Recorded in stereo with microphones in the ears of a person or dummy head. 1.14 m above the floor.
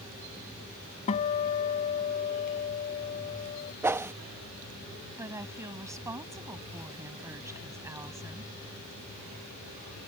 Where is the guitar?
40° left (ahead or behind).